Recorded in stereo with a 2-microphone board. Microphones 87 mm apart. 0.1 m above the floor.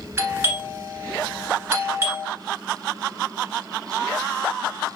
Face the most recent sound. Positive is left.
turn(degrees=-25)  # may be behind; listen again after turning